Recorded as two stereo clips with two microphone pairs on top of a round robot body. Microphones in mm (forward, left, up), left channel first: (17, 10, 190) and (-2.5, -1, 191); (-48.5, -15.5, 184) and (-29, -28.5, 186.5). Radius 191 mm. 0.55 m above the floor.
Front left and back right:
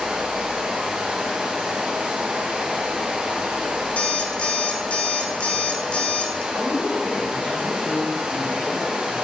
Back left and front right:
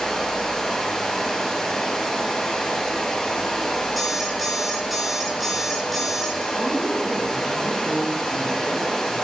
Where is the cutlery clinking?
I don't hear cutlery clinking.